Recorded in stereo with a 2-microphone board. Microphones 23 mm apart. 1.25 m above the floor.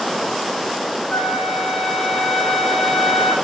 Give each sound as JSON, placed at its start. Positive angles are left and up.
{"t": 1.1, "sound": "a flute", "side_deg": 35, "distance_m": 1.6}